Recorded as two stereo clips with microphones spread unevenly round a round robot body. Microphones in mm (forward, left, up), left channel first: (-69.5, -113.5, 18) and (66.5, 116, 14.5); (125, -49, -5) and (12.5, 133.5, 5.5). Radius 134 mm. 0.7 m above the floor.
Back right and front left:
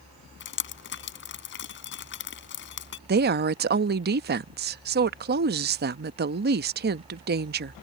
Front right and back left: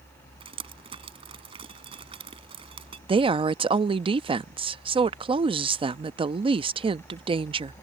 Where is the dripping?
170° right.